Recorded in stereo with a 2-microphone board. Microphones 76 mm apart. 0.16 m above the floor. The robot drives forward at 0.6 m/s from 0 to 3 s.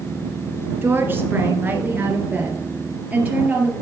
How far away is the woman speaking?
About 1.8 m.